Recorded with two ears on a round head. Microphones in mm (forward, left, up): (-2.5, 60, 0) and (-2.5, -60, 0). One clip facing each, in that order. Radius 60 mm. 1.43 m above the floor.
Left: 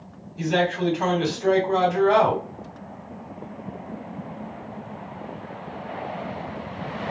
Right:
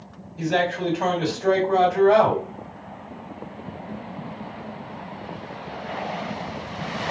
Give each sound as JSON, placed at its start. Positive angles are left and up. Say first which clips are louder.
{"t": 0.4, "sound": "a man speaking", "louder": "even", "side_deg": 25, "distance_m": 1.7}